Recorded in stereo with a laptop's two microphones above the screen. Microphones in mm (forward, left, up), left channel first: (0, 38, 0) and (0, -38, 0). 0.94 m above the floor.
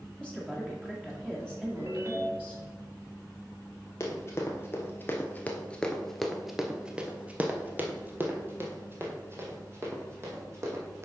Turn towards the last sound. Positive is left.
turn(degrees=-35)  # may be behind; listen again after turning